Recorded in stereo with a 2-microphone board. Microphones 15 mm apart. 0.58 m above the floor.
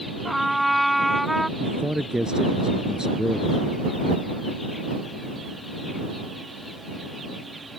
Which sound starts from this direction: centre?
A trumpet, at 0.2 s.